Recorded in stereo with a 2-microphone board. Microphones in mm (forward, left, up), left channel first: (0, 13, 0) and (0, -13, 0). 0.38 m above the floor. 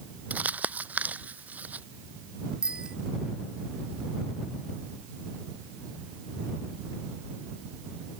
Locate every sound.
0.3 s crumpling: 85° right
2.6 s a bicycle bell: 35° right (ahead or behind)